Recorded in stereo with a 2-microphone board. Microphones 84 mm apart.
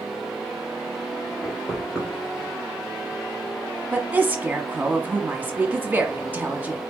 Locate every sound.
1.4 s knocking: 10° left (ahead or behind), 3 m
3.9 s a woman speaking: 20° right (ahead or behind), 1.1 m